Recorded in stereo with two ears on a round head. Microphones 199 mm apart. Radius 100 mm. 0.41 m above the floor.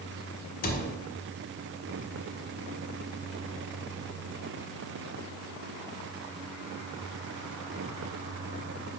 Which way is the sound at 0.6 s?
40° left (ahead or behind).